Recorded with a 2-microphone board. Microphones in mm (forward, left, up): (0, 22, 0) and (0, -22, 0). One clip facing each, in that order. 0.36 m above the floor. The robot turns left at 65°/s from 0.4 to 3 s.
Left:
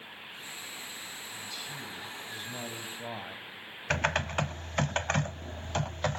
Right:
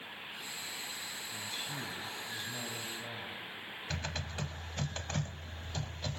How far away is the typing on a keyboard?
About 0.5 m.